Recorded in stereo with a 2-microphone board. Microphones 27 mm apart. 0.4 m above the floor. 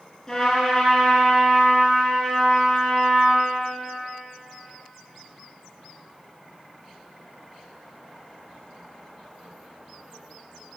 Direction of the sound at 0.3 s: 30° left (ahead or behind).